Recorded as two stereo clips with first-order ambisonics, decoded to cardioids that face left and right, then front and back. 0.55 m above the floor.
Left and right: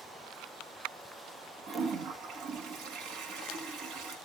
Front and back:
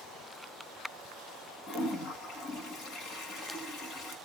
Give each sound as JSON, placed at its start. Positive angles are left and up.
{"t": 1.7, "sound": "a toilet flushing", "azimuth_deg": -50, "distance_m": 0.9}